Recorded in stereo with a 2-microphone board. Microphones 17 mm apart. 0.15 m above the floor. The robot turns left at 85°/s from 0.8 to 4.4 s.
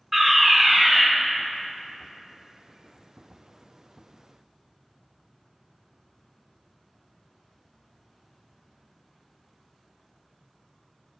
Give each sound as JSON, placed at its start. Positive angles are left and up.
{"t": 0.1, "sound": "a fire alarm", "side_deg": -10, "distance_m": 2.5}